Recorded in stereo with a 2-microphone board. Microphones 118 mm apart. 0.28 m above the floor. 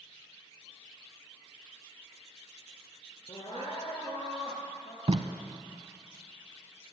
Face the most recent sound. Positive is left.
turn(degrees=-60)  # may be behind; listen again after turning